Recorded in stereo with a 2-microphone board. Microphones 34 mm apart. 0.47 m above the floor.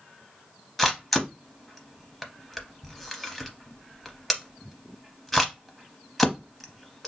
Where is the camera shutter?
5° left (ahead or behind), 0.6 m.